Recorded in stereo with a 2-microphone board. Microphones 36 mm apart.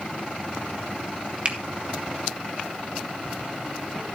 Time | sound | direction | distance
1.4 | a finger snap | 30° right (ahead or behind) | 1.8 m